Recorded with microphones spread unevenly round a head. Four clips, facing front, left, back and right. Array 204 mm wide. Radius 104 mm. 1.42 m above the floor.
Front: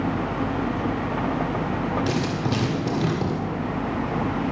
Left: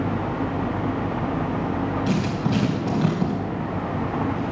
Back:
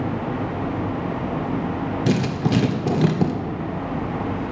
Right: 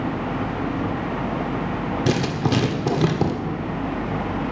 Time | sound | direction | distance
2.1 | writing | 120° right | 1.7 m